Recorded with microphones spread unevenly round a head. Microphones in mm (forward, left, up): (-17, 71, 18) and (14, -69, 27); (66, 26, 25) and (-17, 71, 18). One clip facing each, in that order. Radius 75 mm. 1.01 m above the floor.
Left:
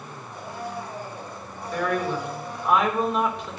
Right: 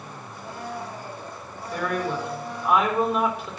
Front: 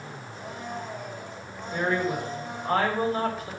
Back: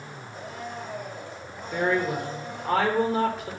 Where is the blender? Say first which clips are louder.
Left 1 dB, even; straight behind, 5 m.